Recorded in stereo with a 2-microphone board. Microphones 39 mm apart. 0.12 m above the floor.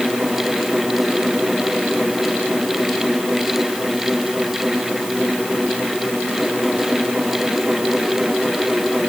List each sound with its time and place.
Only background noise.